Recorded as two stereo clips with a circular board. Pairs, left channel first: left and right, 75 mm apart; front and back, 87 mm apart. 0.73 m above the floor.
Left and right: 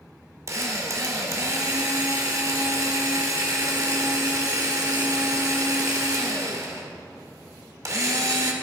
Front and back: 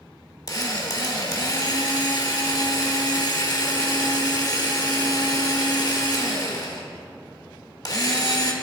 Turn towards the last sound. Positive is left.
turn(degrees=-45)